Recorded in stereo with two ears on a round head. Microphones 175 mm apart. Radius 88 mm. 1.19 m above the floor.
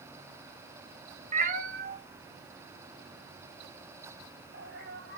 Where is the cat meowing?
35° right (ahead or behind), 0.9 m; by 5.2 s 50° right (ahead or behind), 4 m.